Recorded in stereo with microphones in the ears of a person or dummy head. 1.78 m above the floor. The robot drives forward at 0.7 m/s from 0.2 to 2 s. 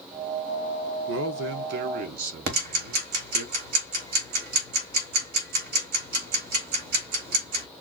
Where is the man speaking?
65° right (ahead or behind), 0.8 m; by 3.5 s 45° right (ahead or behind), 1.0 m.